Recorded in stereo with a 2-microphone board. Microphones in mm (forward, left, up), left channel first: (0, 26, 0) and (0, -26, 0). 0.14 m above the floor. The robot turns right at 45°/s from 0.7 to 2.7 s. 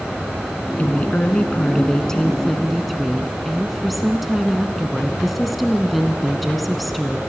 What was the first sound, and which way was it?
A woman speaking, 95° left.